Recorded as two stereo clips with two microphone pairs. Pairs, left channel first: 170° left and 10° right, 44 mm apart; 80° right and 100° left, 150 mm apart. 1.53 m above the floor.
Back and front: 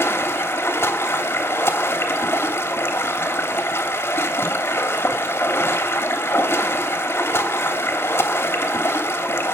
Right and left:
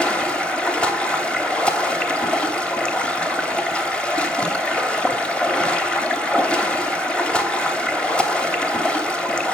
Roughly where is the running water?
Behind.